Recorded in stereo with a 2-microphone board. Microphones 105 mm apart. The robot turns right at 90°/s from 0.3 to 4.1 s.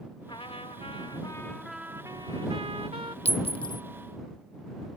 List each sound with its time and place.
0.3 s a trumpet: 55° left; by 3.1 s 50° right
3.2 s a clink: 85° left; by 3.8 s 35° left (ahead or behind)